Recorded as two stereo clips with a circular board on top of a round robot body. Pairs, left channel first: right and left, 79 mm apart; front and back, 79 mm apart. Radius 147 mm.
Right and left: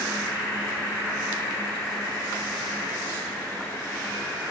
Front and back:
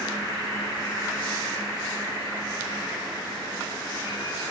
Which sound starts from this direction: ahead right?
An insect, at 0.0 s.